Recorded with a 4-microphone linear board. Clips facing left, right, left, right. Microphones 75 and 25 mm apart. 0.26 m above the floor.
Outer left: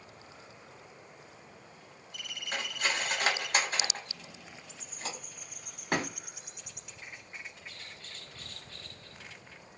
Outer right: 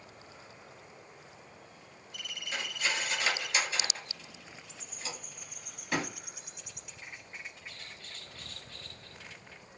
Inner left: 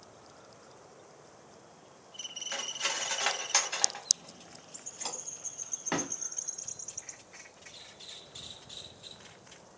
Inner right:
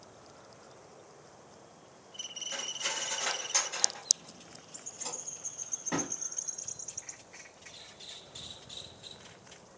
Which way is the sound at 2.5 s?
50° left (ahead or behind).